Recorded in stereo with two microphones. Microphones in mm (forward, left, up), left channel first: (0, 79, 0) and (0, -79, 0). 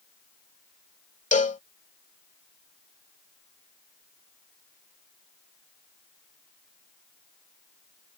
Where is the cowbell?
50° left (ahead or behind).